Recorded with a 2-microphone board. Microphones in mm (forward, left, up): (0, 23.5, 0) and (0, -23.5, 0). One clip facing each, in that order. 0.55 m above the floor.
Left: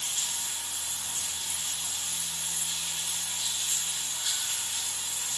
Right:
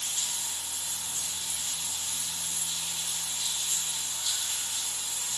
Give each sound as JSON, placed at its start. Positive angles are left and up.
{"t": 0.0, "sound": "running water", "side_deg": 65, "distance_m": 1.8}